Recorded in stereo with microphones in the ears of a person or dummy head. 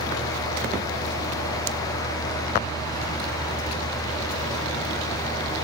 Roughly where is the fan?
Centre.